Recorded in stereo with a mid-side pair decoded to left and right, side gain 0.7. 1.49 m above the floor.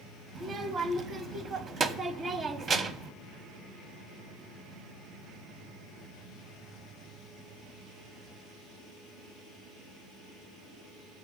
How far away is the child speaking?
About 0.8 m.